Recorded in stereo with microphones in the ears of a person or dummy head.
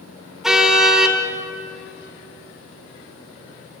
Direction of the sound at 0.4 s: 5° right (ahead or behind).